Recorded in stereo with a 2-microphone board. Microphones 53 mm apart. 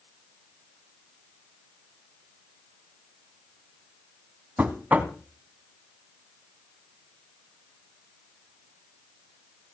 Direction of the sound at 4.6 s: 30° right (ahead or behind).